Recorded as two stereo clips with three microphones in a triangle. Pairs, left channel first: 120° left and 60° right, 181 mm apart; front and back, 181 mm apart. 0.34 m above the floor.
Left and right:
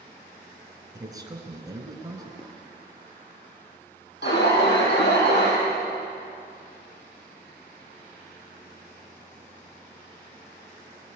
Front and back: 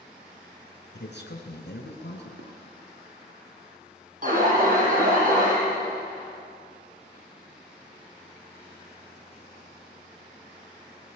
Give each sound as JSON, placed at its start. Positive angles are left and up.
{"t": 0.9, "sound": "a man speaking", "azimuth_deg": 10, "distance_m": 4.0}
{"t": 2.4, "sound": "dishes clattering", "azimuth_deg": 180, "distance_m": 5.0}
{"t": 4.2, "sound": "an alarm", "azimuth_deg": 140, "distance_m": 8.5}